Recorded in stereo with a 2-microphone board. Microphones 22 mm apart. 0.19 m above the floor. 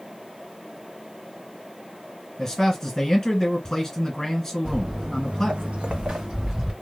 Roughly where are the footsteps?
Right.